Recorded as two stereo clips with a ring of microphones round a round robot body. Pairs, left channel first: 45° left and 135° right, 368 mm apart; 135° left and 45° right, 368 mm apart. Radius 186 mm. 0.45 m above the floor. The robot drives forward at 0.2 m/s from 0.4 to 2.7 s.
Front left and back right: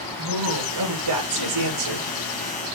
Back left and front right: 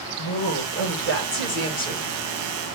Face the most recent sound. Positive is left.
turn(degrees=-170)